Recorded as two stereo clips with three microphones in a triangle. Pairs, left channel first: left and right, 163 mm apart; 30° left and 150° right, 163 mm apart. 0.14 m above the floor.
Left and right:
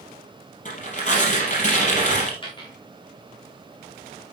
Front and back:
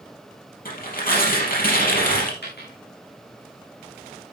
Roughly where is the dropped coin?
Ahead left.